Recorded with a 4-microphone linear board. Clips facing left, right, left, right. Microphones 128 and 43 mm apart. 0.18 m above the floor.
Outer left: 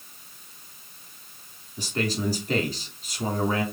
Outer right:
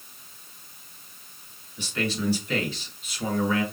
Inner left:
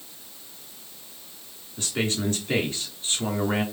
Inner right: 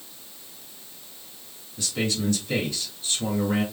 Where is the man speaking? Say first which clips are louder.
Outer left 1 dB, even; 40° left (ahead or behind), 2.5 m.